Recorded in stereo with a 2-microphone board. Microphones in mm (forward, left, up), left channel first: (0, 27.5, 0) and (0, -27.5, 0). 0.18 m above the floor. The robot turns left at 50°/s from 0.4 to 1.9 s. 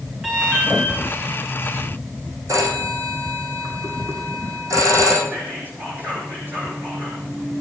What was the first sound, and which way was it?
An alarm, 10° right (ahead or behind).